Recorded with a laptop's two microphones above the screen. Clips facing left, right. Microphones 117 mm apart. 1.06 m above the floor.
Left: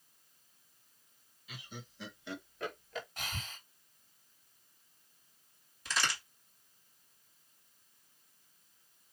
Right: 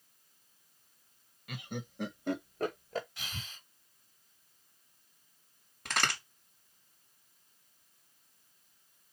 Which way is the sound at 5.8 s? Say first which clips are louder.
Right 2 dB; 55° right (ahead or behind).